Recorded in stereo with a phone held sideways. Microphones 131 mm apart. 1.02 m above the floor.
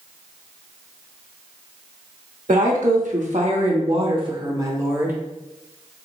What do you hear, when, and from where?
2.5 s a woman speaking: 85° right, 1.3 m; by 5.2 s 15° right (ahead or behind), 1.3 m